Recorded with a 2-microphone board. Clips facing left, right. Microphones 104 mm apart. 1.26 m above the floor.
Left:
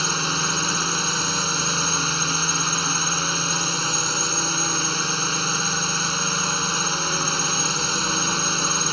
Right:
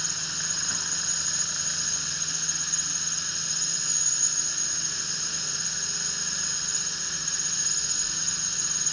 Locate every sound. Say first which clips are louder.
0.0 s a drone: left 15 dB; 70° left (ahead or behind)